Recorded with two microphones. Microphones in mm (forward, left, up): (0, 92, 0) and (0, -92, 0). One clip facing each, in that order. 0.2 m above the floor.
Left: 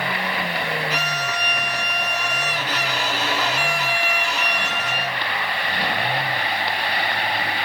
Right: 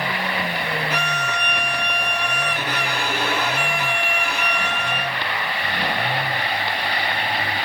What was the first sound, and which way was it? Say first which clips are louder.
A violin: right 1 dB; 50° right (ahead or behind).